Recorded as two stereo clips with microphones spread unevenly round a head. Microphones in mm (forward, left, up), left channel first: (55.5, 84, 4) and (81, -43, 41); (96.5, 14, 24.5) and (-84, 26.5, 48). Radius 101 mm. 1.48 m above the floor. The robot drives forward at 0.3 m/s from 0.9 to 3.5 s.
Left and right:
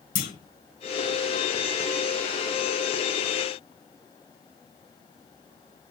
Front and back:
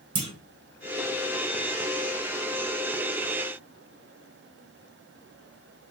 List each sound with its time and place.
0.1 s a clunk: 125° left, 0.7 m